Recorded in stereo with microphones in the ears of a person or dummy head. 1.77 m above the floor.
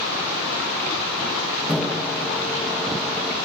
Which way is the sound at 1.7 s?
Centre (ahead or behind).